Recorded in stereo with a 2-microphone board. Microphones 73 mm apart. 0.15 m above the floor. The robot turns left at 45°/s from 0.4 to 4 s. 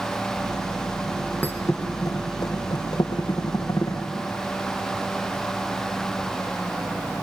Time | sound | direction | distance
1.4 | a thud | 20° left (ahead or behind) | 2.5 m